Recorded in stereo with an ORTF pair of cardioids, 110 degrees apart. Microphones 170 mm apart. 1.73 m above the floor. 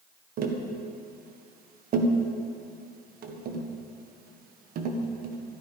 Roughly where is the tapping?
Ahead right.